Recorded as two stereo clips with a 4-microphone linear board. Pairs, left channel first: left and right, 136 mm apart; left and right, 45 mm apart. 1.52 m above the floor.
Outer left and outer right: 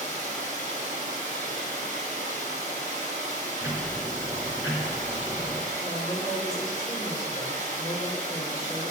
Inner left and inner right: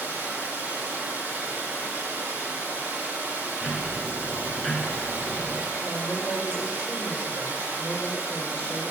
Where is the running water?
65° right (ahead or behind), 2.5 m.